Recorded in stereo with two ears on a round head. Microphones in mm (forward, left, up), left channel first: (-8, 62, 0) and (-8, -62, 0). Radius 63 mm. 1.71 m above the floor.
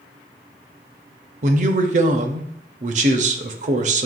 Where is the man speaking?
55° right (ahead or behind), 0.6 m.